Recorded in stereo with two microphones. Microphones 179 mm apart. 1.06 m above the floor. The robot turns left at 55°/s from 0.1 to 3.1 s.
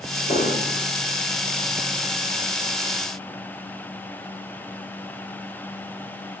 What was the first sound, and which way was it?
An explosion, 135° left.